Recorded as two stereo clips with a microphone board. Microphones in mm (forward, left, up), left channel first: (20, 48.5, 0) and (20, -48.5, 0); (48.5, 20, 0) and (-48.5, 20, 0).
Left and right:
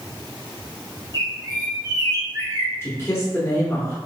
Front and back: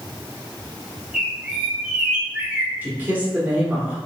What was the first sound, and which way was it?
A bird, 105° right.